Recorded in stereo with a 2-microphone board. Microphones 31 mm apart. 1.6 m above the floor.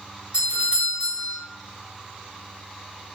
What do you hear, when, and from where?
0.3 s a doorbell: 40° right (ahead or behind), 1.1 m